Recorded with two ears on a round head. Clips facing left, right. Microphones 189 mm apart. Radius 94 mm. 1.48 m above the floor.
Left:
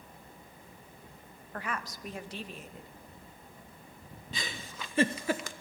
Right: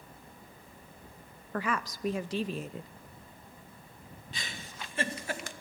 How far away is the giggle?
About 1.1 m.